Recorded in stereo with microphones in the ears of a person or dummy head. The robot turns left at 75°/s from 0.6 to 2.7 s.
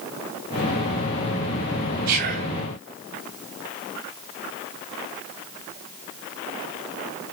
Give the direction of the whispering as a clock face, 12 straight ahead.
4 o'clock.